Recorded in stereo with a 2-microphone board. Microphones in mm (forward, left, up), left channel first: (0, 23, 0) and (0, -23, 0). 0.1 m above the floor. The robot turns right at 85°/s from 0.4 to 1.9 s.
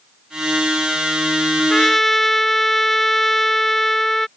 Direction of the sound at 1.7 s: 15° left (ahead or behind).